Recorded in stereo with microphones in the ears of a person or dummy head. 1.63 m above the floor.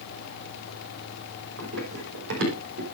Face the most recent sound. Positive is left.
turn(degrees=-70)  # may be behind; listen again after turning